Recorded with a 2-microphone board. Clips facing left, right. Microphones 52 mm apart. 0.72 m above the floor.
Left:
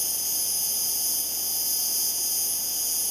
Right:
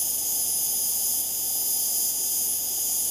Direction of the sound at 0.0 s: 50° left (ahead or behind).